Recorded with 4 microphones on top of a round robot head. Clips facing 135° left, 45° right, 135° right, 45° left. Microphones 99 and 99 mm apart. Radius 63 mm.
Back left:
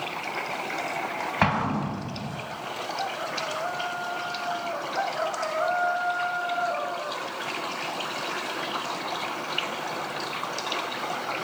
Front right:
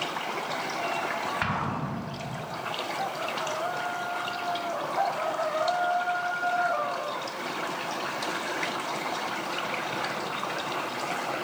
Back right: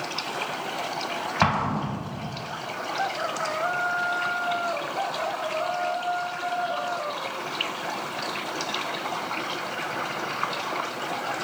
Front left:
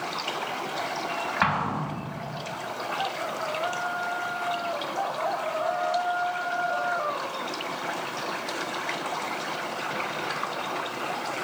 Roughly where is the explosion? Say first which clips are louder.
Back left 5 dB, back right 3 dB; behind.